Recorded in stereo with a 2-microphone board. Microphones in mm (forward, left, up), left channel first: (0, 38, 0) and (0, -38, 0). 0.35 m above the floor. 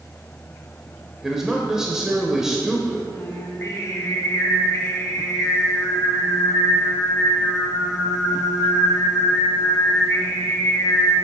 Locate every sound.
1.2 s a man speaking: 5° right (ahead or behind), 1.0 m
3.1 s singing: 40° left (ahead or behind), 2.5 m